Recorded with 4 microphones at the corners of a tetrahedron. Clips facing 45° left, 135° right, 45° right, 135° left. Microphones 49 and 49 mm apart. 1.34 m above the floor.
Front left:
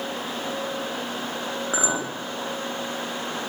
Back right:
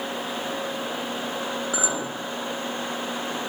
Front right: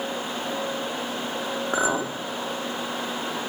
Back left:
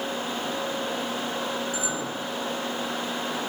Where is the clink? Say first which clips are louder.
Front left 4 dB, front right 6 dB; 15° right, 1.7 m.